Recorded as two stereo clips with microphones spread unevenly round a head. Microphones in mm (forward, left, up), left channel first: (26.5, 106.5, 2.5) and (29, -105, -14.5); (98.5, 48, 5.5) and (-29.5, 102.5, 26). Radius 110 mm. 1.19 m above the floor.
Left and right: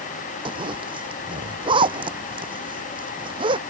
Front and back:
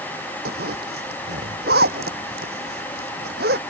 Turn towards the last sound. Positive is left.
turn(degrees=-160)